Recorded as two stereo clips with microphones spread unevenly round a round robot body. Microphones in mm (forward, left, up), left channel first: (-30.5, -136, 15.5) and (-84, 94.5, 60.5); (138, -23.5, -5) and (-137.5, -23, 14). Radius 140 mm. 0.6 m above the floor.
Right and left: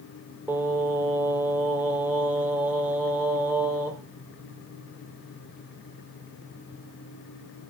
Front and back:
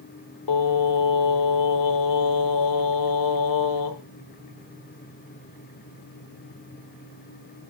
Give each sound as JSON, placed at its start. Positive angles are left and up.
{"t": 0.5, "sound": "singing", "azimuth_deg": 20, "distance_m": 1.0}